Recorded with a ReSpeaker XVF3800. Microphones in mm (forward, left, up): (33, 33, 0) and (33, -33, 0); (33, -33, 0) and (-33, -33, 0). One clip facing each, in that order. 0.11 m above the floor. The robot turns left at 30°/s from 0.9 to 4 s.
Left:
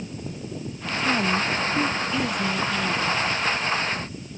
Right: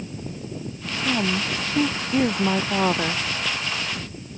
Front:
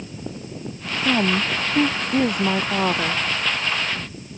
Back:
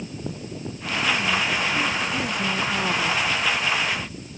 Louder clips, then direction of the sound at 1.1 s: Left 1 dB, front 3 dB; 10° right.